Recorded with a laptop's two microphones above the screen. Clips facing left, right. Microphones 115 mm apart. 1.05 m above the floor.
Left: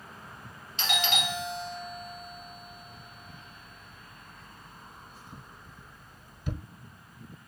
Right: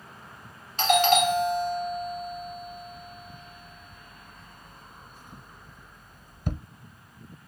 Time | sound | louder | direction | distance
0.8 | a doorbell | right 11 dB | 45° right (ahead or behind) | 0.9 m